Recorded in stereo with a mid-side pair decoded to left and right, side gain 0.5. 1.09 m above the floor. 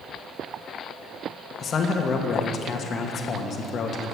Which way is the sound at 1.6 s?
50° left.